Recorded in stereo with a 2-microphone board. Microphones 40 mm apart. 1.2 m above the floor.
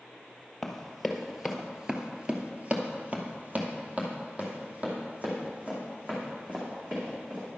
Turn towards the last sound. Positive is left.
turn(degrees=-30)  # may be behind; listen again after turning